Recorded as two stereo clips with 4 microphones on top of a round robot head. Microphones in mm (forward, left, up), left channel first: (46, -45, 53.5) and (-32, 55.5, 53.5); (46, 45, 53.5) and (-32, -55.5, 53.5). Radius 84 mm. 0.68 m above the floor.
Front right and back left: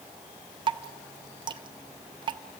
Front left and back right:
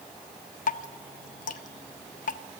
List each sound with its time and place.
0.7 s dripping: 75° left, 0.5 m